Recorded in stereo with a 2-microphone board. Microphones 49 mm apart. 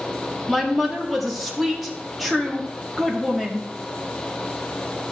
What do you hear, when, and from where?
0.5 s a woman speaking: 5° right (ahead or behind), 1.9 m